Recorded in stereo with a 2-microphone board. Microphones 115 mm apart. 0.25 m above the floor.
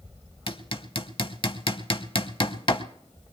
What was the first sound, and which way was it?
Hammering, 50° left (ahead or behind).